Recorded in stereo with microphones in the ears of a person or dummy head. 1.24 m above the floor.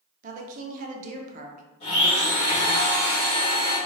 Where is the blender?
30° left (ahead or behind), 1.5 m.